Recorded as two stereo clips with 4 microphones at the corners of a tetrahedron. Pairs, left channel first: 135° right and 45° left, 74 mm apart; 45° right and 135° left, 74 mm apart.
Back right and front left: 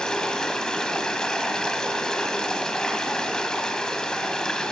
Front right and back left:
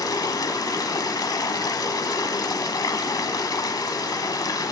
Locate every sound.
0.0 s running water: 55° right, 1.3 m